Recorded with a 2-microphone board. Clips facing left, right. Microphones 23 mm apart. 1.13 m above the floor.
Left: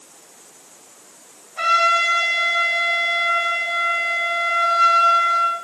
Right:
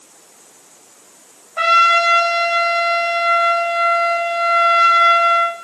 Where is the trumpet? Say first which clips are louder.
Right 4 dB; 60° right (ahead or behind), 2 m.